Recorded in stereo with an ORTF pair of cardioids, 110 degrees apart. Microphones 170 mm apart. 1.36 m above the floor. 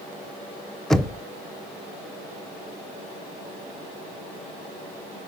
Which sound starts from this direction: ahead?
Knocking, at 0.9 s.